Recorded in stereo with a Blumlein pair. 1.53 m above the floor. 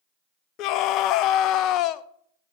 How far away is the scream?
About 0.5 m.